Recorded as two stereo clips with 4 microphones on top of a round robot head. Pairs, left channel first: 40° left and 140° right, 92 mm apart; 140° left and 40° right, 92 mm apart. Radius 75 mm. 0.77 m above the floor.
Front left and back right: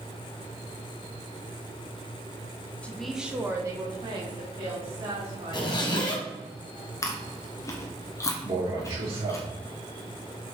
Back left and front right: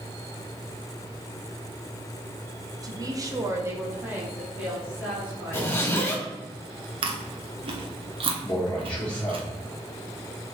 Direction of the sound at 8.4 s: 145° right.